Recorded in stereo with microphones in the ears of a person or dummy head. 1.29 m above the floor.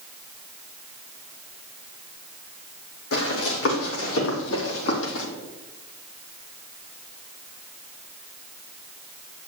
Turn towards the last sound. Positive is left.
turn(degrees=65)  # may be behind; listen again after turning